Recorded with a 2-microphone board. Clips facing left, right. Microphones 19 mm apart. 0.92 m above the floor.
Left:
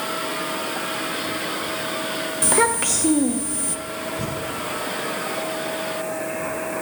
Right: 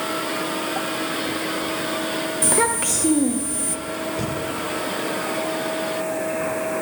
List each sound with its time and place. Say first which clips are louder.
2.4 s a child speaking: left 2 dB; 15° left (ahead or behind), 0.9 m
4.2 s breathing: right 1 dB; 85° right, 7 m